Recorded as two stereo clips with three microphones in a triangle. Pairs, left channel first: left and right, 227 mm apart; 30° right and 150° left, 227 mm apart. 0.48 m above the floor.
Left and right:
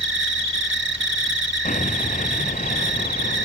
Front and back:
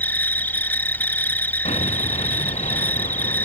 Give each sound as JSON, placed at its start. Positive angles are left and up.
{"t": 0.0, "sound": "an insect", "azimuth_deg": -110}
{"t": 1.6, "sound": "an explosion", "azimuth_deg": 35}